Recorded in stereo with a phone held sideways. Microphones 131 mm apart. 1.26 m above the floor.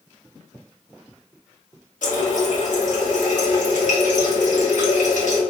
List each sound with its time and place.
2.0 s a running tap: 70° left (ahead or behind), 1.1 m